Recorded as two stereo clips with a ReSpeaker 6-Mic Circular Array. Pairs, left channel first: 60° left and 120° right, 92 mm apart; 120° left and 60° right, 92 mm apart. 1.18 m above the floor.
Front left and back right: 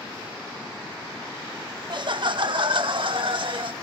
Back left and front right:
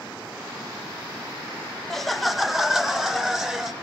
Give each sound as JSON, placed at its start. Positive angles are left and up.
{"t": 1.9, "sound": "laughter", "azimuth_deg": -155, "distance_m": 0.8}